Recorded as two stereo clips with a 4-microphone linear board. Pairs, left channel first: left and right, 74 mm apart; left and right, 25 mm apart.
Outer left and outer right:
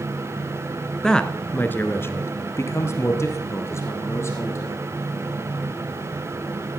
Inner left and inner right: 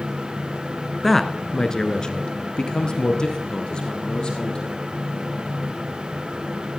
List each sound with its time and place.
1.0 s a man speaking: 10° left (ahead or behind), 1.2 m; by 4.8 s 40° left (ahead or behind), 3.5 m